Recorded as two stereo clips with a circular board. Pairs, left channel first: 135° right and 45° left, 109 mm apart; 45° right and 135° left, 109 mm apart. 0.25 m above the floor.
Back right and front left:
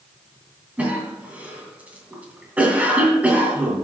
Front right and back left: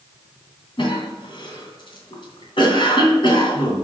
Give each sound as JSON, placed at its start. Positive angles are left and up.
{"t": 0.8, "sound": "a cough", "azimuth_deg": -30, "distance_m": 2.5}